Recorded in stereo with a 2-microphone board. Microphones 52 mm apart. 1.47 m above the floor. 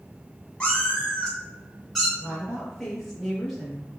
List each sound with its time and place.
0.6 s a cat meowing: 20° left (ahead or behind), 1.3 m; by 2.1 s 5° right (ahead or behind), 1.3 m
2.2 s a woman speaking: 5° left (ahead or behind), 1.9 m